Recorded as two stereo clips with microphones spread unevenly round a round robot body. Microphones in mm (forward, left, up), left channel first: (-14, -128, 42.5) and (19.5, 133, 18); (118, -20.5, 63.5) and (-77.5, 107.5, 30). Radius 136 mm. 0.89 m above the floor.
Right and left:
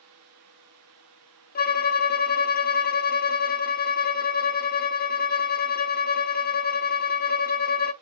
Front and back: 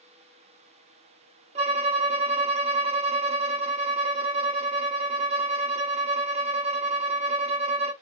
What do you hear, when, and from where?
1.6 s a violin: 145° right, 0.6 m